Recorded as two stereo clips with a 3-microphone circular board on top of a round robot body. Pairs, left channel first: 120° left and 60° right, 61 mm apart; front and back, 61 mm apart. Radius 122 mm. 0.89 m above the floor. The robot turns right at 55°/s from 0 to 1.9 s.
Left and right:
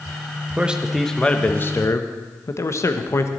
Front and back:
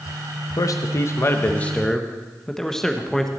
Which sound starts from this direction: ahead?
A man speaking, at 0.6 s.